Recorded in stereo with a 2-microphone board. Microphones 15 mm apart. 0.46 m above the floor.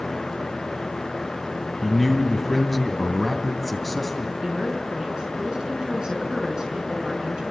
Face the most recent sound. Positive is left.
turn(degrees=-70)  # may be behind; listen again after turning